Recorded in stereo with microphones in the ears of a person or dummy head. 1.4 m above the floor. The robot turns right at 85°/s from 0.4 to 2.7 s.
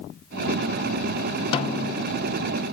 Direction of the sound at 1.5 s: 35° left.